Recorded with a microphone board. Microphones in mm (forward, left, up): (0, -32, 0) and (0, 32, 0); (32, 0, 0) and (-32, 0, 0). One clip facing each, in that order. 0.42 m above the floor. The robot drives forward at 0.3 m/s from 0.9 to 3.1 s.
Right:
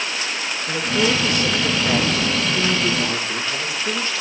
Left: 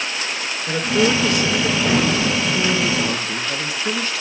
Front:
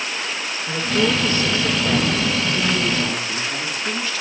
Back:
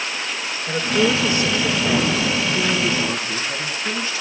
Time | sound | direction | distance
0.7 | a woman speaking | 110° left | 5.5 m